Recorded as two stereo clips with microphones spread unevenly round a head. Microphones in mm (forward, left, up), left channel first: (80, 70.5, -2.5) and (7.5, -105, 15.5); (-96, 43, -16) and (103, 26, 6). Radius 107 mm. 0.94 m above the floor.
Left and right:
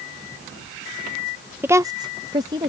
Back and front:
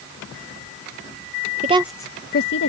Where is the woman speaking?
30° right; by 2.7 s 175° left.